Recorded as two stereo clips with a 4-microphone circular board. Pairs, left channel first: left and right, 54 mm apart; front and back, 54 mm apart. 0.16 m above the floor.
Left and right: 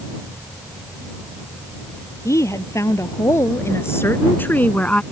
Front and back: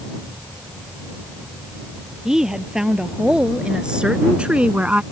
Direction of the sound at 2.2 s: 100° left.